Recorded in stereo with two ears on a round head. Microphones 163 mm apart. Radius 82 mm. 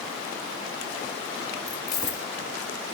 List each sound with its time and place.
1.7 s keys jangling: 20° left (ahead or behind), 1.3 m